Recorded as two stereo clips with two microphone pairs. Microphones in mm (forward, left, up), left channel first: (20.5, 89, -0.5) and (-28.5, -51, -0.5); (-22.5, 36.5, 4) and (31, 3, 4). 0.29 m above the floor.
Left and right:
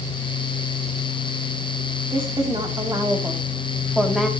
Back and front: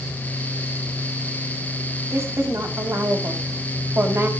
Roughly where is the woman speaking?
Ahead right.